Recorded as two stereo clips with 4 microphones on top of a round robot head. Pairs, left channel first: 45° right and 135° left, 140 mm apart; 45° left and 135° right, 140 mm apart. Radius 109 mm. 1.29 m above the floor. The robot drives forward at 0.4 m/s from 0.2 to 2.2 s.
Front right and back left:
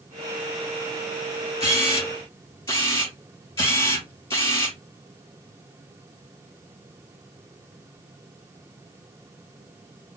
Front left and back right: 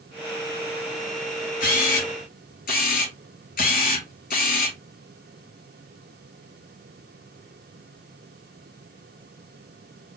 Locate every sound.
1.6 s a camera shutter: 25° left, 2.5 m; by 4.8 s 30° left, 2 m